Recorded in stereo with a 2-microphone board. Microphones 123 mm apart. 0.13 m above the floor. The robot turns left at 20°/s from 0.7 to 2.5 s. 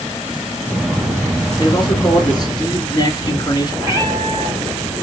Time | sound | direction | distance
1.6 | a man speaking | 35° left (ahead or behind) | 1.9 m
3.8 | a cat meowing | 25° right (ahead or behind) | 2.5 m